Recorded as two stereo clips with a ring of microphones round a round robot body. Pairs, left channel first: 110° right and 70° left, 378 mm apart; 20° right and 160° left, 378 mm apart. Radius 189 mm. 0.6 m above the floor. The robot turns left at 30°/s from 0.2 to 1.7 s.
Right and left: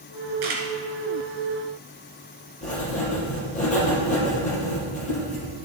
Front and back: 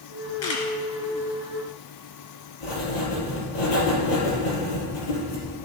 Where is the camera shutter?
30° left, 2.5 m; by 0.7 s 25° left, 2.5 m.